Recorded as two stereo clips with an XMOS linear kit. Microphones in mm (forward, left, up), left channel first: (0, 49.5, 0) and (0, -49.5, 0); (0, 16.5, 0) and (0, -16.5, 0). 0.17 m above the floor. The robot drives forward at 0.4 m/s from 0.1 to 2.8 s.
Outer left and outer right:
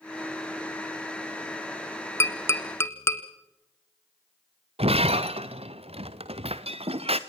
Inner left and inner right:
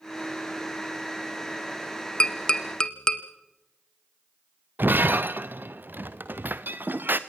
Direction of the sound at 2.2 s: 25° left (ahead or behind).